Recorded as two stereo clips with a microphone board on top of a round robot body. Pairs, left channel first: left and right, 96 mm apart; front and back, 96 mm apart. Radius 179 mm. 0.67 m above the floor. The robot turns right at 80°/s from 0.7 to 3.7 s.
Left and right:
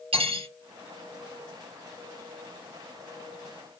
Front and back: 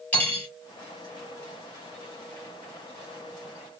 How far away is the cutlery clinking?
About 1.7 m.